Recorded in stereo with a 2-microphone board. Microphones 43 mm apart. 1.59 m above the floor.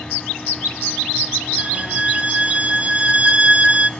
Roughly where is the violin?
Right.